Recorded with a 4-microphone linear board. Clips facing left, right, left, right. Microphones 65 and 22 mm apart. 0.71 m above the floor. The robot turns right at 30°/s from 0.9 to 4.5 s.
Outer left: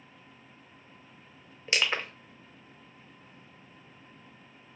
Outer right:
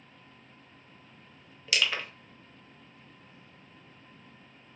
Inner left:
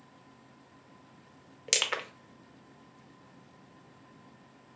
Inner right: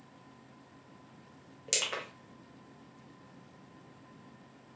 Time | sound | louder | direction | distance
1.7 | crushing | outer left 1 dB, inner left 4 dB | 25° left (ahead or behind) | 0.6 m